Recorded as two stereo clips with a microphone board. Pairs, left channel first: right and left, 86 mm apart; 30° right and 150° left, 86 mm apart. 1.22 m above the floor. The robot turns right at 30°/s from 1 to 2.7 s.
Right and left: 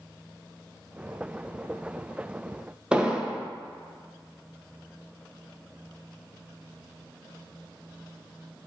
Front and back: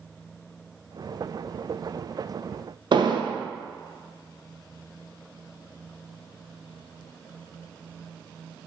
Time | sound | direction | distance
2.9 | an explosion | 170° left | 0.6 m